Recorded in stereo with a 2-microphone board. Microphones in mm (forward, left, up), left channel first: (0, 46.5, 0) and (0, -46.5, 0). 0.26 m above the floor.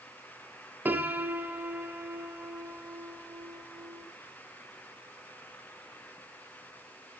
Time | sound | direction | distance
0.8 | a piano | 20° right (ahead or behind) | 1.3 m